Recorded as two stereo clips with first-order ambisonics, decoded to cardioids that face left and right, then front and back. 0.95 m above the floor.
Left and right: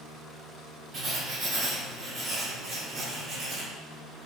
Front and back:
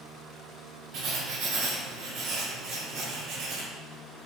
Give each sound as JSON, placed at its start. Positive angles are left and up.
{"t": 0.9, "sound": "writing", "azimuth_deg": -155, "distance_m": 1.9}